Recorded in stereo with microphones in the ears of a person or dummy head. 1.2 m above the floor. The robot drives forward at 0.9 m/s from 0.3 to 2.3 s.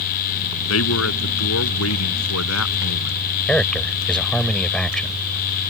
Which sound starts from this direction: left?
A man speaking, at 0.7 s.